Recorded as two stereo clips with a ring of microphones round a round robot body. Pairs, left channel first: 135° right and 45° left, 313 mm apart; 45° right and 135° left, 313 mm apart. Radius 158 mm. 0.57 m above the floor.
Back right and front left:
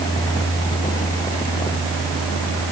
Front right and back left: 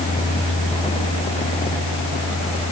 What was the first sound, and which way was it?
Only background noise.